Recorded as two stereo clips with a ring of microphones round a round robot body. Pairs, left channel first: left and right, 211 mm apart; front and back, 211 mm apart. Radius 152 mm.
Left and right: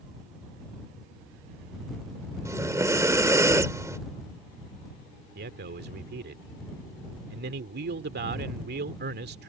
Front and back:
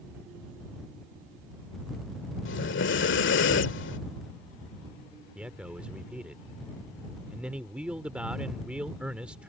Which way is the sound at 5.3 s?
95° right.